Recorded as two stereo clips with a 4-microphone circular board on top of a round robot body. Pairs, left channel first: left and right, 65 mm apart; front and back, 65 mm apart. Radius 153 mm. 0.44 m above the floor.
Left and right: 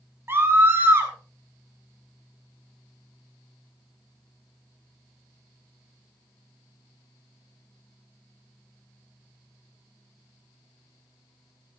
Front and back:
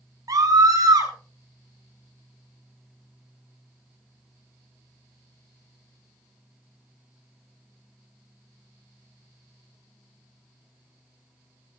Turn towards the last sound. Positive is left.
turn(degrees=-145)